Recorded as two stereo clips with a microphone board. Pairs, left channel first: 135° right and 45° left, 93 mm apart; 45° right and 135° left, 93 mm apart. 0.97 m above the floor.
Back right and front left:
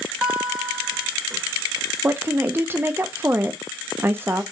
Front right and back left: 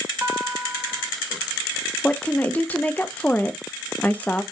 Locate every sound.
0.2 s a guitar: 110° left, 0.8 m
2.0 s a woman speaking: 10° left, 0.5 m